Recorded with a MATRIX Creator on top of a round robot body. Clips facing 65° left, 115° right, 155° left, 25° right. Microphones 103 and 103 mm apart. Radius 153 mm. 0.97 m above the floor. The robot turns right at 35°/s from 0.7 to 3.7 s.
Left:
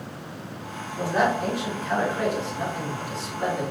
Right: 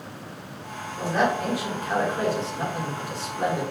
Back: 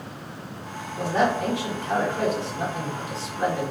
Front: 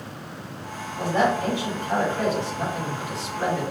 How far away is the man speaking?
About 2 m.